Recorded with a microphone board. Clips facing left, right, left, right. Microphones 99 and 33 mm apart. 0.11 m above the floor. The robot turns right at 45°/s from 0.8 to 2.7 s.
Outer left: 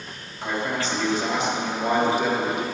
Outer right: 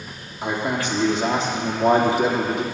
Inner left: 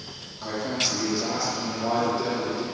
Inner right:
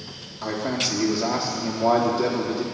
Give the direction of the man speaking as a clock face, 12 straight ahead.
6 o'clock.